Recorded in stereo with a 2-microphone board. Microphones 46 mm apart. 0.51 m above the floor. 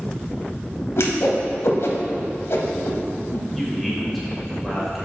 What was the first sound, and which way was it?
A whoosh, 75° left (ahead or behind).